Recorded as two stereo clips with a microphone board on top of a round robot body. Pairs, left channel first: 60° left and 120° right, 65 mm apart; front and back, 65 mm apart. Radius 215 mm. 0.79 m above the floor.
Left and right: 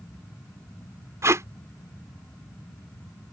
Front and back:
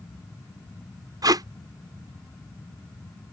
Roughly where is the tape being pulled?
Behind.